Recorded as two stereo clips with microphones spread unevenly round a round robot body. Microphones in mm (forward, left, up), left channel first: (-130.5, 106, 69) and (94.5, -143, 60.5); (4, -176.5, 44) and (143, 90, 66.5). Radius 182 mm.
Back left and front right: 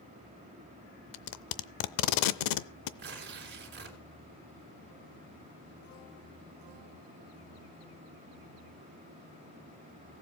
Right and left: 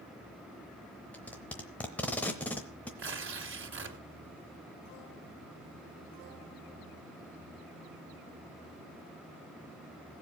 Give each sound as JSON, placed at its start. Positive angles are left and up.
{"t": 1.1, "sound": "tape being pulled", "azimuth_deg": 160, "distance_m": 0.7}
{"t": 3.0, "sound": "tearing paper", "azimuth_deg": 10, "distance_m": 2.5}